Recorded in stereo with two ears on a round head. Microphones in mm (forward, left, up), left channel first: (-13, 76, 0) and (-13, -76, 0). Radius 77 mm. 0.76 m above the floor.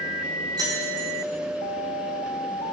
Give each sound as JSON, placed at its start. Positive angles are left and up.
{"t": 0.6, "sound": "keys jangling", "side_deg": -25, "distance_m": 5.5}